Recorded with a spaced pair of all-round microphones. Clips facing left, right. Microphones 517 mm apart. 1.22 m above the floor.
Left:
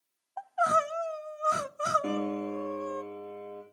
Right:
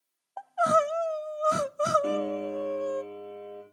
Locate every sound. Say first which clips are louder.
0.4 s crying: right 5 dB; 60° right (ahead or behind), 0.6 m
2.0 s a piano: right 2 dB; 25° left (ahead or behind), 4 m